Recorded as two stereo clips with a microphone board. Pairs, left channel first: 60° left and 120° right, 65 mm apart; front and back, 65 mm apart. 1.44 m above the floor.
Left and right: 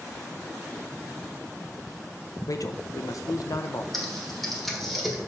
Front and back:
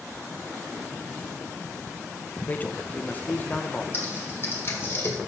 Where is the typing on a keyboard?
25° right, 1.4 m.